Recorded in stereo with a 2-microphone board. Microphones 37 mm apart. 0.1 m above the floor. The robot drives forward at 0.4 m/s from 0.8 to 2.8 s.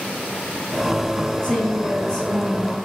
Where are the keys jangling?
I don't hear keys jangling.